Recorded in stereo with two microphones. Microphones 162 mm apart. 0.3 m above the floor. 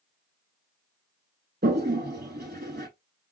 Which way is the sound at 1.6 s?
85° right.